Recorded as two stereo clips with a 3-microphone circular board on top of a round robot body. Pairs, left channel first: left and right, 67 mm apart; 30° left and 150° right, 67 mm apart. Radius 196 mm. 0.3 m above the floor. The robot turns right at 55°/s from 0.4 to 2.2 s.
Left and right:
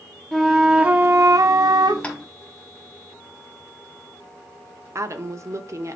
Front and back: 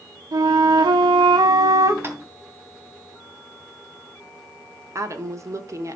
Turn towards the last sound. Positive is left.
turn(degrees=-120)